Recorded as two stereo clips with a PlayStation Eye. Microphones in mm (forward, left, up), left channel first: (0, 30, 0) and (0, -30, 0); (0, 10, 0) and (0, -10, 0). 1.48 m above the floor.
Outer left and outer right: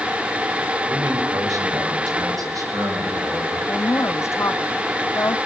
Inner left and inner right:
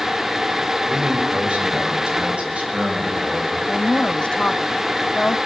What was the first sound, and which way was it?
A man speaking, 75° right (ahead or behind).